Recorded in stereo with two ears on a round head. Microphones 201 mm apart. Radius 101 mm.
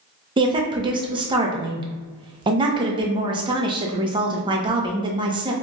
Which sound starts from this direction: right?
A woman speaking, at 0.4 s.